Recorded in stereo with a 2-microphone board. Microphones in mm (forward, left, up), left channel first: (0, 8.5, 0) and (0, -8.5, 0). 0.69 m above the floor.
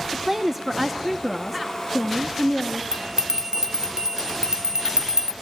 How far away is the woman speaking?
About 1.0 m.